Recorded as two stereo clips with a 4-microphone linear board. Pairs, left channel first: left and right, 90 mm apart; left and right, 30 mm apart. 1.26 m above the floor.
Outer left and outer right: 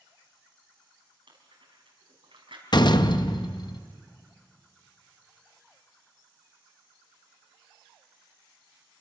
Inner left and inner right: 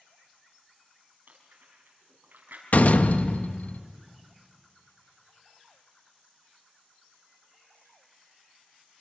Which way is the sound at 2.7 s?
55° left (ahead or behind).